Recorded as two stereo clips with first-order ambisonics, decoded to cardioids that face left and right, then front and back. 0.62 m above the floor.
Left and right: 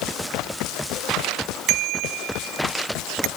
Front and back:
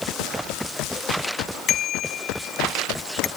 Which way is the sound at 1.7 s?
55° right.